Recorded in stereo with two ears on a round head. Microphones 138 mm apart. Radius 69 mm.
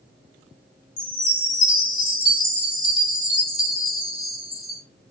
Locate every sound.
1.0 s a chime: 55° left (ahead or behind), 2.5 m